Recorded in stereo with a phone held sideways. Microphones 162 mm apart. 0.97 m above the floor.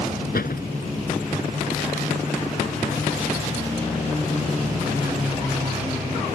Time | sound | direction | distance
0.3 | a door slam | 75° left (ahead or behind) | ?